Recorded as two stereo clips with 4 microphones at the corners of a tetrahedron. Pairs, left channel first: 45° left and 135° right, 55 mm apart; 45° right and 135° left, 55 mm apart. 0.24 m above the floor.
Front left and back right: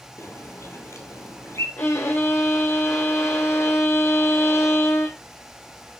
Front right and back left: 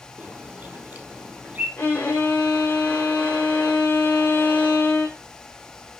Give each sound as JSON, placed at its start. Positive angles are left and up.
{"t": 0.2, "sound": "a bird", "azimuth_deg": 75, "distance_m": 3.5}
{"t": 1.8, "sound": "a violin", "azimuth_deg": 10, "distance_m": 2.0}